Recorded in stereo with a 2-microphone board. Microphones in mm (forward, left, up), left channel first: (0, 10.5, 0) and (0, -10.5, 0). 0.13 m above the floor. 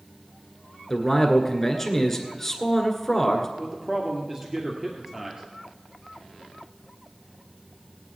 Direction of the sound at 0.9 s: 15° left (ahead or behind).